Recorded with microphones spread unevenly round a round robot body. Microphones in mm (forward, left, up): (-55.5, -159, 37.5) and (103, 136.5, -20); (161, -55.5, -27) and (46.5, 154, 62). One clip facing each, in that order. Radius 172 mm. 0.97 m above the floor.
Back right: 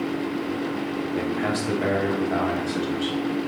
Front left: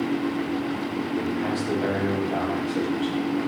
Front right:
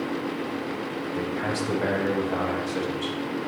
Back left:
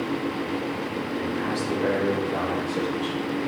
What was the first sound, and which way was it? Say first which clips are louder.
A man speaking: even, back left 1 dB; 80° right.